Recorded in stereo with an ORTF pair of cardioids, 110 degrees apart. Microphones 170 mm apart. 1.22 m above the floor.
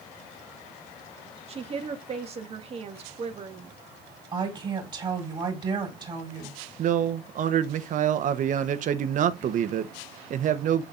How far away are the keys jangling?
No keys jangling in this recording.